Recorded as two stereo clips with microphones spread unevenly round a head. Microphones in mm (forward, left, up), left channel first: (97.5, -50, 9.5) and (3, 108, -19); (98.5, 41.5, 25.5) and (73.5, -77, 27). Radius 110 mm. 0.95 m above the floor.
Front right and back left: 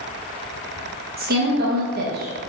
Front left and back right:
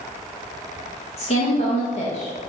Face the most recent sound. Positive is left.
turn(degrees=105)